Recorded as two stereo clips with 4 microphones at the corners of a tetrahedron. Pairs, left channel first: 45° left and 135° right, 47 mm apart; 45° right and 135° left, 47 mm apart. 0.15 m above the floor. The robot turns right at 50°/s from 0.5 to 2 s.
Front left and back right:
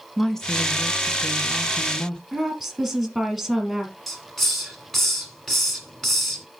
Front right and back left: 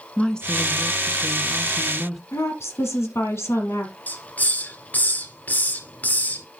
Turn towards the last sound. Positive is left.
turn(degrees=-35)